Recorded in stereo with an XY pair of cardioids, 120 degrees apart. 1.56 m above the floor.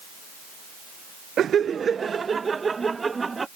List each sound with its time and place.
1.4 s laughter: 50° right; by 3.5 s 20° right